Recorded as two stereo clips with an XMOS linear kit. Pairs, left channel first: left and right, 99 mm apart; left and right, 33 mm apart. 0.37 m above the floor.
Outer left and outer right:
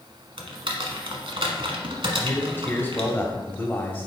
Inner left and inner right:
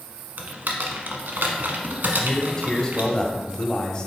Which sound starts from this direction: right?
Typing on a keyboard, at 0.4 s.